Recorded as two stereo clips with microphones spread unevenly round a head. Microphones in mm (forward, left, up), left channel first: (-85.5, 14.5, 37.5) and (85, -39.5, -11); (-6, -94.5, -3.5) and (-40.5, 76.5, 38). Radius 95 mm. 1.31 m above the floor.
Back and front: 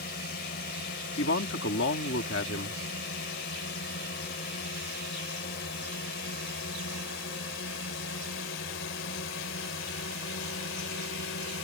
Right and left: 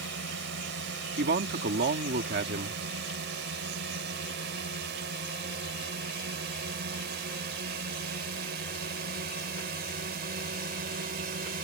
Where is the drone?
120° left; by 11.6 s 140° left.